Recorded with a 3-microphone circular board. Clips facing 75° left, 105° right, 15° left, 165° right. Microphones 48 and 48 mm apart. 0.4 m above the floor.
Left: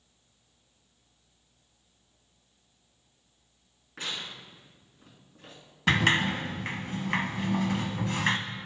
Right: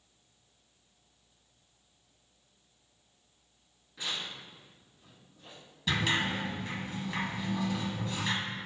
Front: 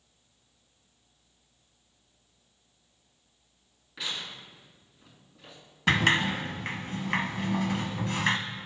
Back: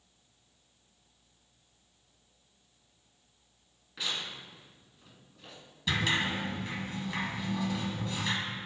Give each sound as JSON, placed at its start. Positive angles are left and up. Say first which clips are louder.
{"t": 4.0, "sound": "tearing paper", "louder": "left 1 dB, even", "azimuth_deg": 100, "distance_m": 2.5}
{"t": 5.9, "sound": "a sliding door", "louder": "left 6 dB, front 6 dB", "azimuth_deg": 45, "distance_m": 0.7}